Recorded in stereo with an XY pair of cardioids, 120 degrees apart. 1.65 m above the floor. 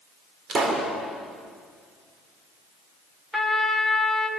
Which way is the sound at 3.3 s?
Straight ahead.